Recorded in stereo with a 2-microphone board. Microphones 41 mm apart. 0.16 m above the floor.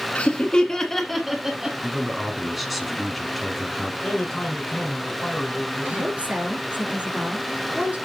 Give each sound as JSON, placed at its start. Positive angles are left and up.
{"t": 0.1, "sound": "laughter", "side_deg": 30, "distance_m": 1.5}
{"t": 1.8, "sound": "a man speaking", "side_deg": 0, "distance_m": 1.2}
{"t": 4.0, "sound": "a man speaking", "side_deg": 10, "distance_m": 1.9}
{"t": 5.8, "sound": "a woman speaking", "side_deg": -35, "distance_m": 2.5}